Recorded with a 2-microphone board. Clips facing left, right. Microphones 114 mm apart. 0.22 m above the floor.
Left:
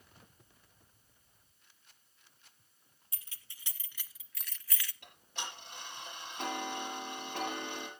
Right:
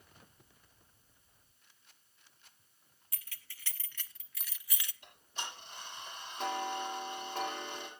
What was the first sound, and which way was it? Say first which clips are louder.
Keys jangling: right 3 dB; 25° left (ahead or behind).